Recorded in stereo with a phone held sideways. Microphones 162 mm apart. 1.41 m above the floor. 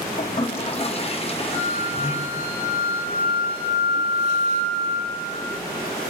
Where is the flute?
25° right (ahead or behind), 5.5 m.